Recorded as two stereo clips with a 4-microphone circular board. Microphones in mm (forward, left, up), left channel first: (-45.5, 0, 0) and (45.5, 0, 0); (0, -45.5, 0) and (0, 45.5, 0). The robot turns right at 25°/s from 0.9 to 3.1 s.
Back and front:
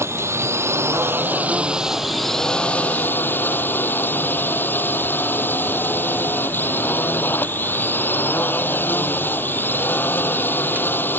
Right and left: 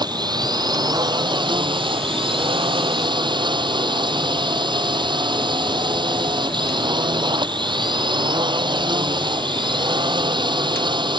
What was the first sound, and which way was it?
A drone, 55° left.